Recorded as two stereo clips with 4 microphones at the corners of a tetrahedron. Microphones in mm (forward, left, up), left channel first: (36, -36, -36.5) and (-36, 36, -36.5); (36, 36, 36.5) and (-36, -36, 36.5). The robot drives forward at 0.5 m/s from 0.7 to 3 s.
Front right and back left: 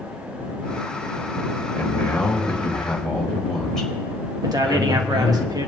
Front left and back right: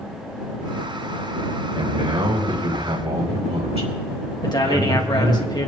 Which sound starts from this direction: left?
A man speaking, at 4.4 s.